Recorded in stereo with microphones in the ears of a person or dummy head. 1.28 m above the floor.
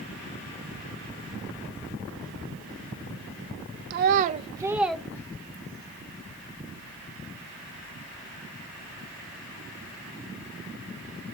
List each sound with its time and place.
3.9 s a child speaking: 50° right (ahead or behind), 0.6 m; by 5.9 s 30° left (ahead or behind), 1.0 m